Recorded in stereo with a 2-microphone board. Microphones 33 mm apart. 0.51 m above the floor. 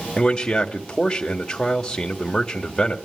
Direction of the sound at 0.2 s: 15° left (ahead or behind).